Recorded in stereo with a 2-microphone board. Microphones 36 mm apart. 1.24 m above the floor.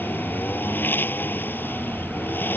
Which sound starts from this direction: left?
A lawn mower, at 0.0 s.